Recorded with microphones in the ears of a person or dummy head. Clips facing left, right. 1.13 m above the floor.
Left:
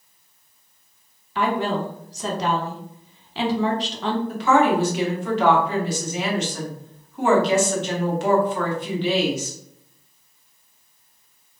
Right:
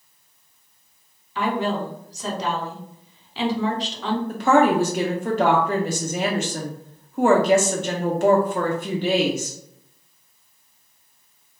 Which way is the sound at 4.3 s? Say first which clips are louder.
Right 2 dB; 40° right (ahead or behind).